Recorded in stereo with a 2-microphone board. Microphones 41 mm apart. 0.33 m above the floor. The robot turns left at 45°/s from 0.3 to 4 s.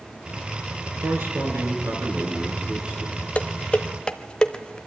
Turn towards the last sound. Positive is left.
turn(degrees=25)  # may be behind; listen again after turning